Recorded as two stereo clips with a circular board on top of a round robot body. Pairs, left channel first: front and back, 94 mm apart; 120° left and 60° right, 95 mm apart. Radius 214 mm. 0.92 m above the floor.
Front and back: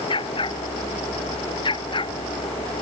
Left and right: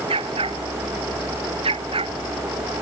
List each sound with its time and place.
0.1 s a dog barking: 35° right